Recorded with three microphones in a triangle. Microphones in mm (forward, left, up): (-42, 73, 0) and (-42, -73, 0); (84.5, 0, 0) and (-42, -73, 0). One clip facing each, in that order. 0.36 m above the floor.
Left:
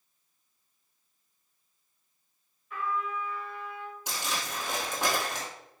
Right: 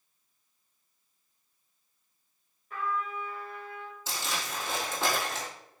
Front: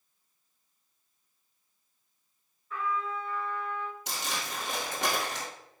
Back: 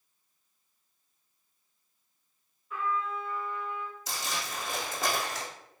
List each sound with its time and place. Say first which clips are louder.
2.7 s a trumpet: left 1 dB, even; 65° right, 1.2 m
4.1 s crumpling: even, even; 15° left, 1.5 m